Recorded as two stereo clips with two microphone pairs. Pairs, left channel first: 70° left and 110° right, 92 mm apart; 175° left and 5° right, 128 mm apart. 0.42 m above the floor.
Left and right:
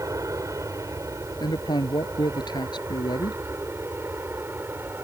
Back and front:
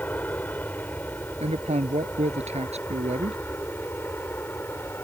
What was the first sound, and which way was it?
An aircraft, 120° right.